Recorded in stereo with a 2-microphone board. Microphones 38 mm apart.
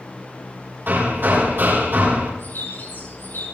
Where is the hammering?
65° right (ahead or behind), 7 m.